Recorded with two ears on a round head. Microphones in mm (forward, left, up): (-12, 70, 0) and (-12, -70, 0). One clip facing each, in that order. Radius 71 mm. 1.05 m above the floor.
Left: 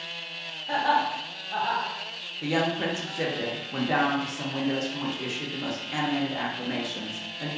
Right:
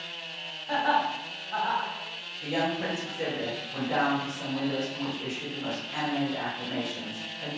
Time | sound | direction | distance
0.7 | laughter | 35° left (ahead or behind) | 0.9 m
2.4 | a woman speaking | 65° left (ahead or behind) | 0.7 m